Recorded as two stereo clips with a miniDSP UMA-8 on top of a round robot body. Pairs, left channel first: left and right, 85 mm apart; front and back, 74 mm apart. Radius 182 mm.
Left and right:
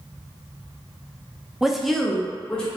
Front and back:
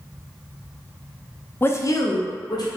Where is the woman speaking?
10° right, 0.6 m; by 2.7 s 10° left, 1.3 m.